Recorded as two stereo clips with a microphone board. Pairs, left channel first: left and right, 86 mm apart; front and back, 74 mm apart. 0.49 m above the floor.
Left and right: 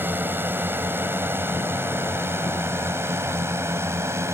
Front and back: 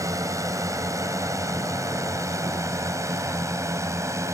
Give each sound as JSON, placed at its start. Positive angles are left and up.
{"t": 0.0, "sound": "a drone", "azimuth_deg": -150}